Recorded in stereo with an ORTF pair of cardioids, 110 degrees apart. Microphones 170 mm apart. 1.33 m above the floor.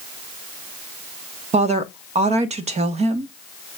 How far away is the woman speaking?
About 1.3 m.